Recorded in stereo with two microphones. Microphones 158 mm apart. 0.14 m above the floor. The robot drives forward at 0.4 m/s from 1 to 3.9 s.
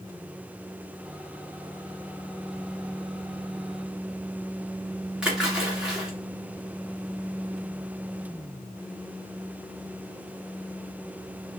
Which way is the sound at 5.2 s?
5° right (ahead or behind).